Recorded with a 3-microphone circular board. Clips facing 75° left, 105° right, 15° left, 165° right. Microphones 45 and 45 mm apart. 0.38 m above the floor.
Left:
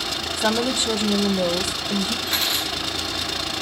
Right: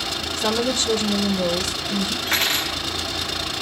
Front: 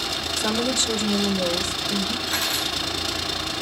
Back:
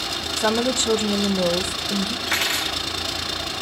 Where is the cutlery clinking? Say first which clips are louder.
Right 2 dB, back 2 dB; 150° right, 4 m.